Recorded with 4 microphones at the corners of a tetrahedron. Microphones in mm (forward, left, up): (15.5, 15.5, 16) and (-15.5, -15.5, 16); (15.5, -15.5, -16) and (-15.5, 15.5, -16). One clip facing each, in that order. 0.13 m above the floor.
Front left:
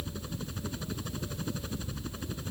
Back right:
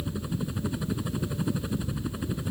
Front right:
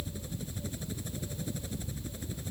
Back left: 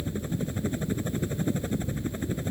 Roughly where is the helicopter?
Behind left.